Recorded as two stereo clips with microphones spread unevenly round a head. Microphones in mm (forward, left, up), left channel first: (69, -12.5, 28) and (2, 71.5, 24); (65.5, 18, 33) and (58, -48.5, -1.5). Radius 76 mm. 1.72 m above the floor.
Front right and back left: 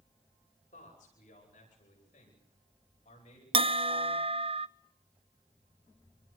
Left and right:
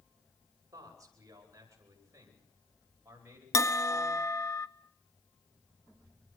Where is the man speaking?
60° right, 9 m; by 3.4 s 40° right, 11 m.